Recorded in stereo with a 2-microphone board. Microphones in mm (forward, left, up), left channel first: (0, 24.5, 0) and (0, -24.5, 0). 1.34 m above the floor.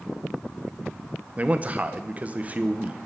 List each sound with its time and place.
1.4 s a man speaking: 30° right (ahead or behind), 1.0 m